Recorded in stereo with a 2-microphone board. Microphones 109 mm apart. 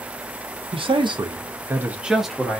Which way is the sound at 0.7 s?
50° right (ahead or behind).